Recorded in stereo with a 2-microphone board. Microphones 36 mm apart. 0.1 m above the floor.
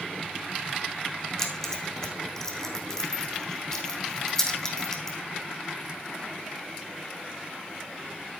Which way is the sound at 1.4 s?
15° left (ahead or behind).